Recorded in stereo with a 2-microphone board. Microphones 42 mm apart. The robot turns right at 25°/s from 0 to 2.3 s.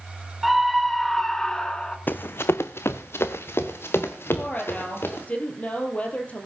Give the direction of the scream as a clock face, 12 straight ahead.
12 o'clock.